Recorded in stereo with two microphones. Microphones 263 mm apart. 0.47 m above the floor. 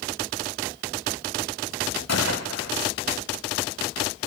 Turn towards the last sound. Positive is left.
turn(degrees=75)  # may be behind; listen again after turning